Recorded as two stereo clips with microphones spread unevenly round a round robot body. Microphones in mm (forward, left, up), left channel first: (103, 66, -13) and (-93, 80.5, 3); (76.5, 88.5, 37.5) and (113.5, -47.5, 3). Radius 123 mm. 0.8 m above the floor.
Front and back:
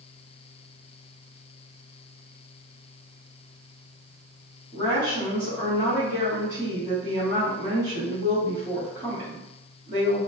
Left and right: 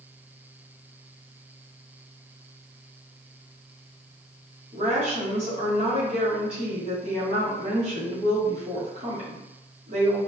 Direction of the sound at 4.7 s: 110° right.